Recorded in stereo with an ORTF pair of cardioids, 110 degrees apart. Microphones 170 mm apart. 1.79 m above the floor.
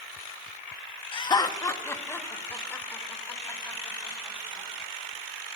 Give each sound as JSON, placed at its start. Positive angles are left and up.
{"t": 1.1, "sound": "laughter", "azimuth_deg": 30, "distance_m": 1.3}